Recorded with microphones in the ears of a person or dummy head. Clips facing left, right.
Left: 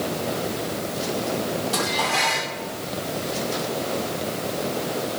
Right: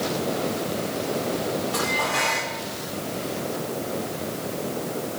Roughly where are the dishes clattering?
Left.